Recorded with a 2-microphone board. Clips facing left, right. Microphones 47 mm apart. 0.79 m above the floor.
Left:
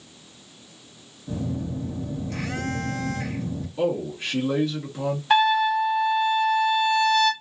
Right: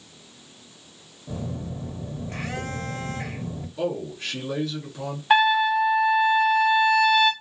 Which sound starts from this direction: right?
A phone buzzing, at 1.3 s.